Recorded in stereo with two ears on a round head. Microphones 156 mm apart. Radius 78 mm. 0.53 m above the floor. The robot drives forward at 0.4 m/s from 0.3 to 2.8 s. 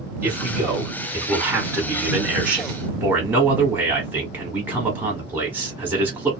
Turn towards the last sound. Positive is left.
turn(degrees=-10)  # may be behind; listen again after turning